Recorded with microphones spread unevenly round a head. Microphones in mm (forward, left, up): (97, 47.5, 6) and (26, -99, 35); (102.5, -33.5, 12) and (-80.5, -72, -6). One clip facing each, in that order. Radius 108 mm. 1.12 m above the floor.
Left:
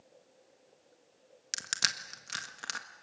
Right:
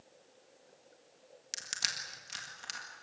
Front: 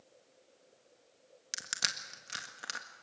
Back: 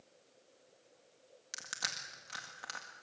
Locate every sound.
1.5 s crushing: 80° left, 1.7 m